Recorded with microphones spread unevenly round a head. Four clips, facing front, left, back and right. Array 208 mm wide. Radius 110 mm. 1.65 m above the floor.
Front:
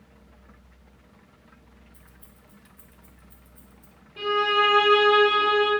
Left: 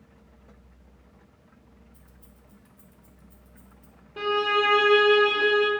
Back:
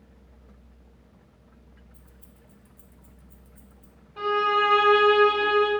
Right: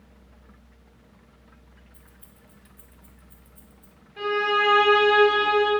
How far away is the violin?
About 1.0 m.